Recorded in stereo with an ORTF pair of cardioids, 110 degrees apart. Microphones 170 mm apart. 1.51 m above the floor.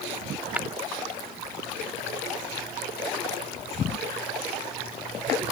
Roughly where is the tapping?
Ahead.